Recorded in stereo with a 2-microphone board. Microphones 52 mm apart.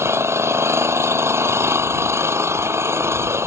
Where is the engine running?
55° right (ahead or behind).